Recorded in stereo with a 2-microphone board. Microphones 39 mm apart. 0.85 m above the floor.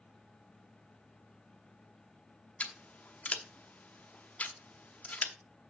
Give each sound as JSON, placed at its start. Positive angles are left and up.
{"t": 2.6, "sound": "scissors", "side_deg": 40, "distance_m": 0.8}